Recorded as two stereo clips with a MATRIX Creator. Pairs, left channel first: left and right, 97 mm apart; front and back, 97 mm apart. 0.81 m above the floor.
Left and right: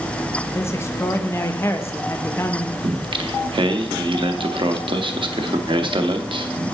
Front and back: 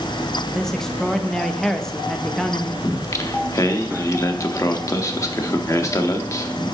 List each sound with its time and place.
0.6 s a man speaking: 80° left, 0.5 m
2.8 s singing: 55° right, 0.6 m